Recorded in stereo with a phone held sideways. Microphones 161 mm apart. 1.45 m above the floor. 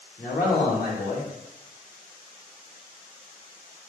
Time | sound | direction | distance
0.2 | a man speaking | 60° left (ahead or behind) | 1.6 m